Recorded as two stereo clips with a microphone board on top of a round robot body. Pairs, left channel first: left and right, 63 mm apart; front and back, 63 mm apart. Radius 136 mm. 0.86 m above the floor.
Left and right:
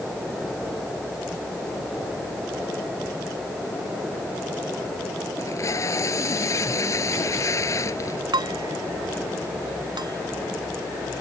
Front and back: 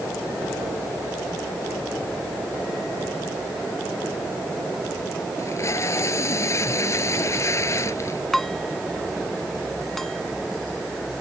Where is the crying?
No crying in this recording.